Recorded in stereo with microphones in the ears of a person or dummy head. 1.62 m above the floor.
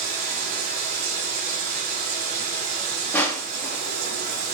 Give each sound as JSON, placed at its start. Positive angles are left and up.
{"t": 0.0, "sound": "running water", "side_deg": -45, "distance_m": 4.0}
{"t": 3.1, "sound": "crushing", "side_deg": 10, "distance_m": 1.8}